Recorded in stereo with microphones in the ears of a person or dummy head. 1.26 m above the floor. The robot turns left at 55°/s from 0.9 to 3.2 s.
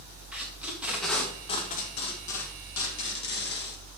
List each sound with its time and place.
0.3 s tape being pulled: 5° right (ahead or behind), 2.5 m; by 3.8 s 55° left (ahead or behind), 2.5 m